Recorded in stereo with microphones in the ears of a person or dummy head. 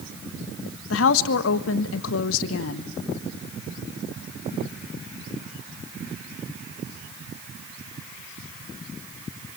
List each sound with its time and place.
0.9 s a woman speaking: 75° left (ahead or behind), 1.3 m